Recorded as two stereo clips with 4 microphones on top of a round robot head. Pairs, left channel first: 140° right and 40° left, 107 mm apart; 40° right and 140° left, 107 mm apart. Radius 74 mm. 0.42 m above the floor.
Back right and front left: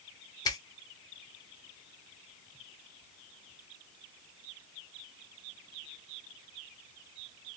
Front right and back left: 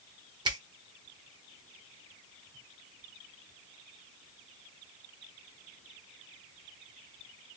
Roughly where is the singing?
No singing in this recording.